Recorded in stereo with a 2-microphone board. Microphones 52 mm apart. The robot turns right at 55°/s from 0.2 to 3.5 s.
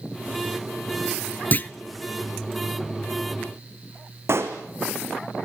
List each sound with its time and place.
1.5 s a clunk: 35° left (ahead or behind), 0.6 m; by 1.7 s 40° left (ahead or behind), 0.6 m
4.3 s a pop: 60° right (ahead or behind), 3 m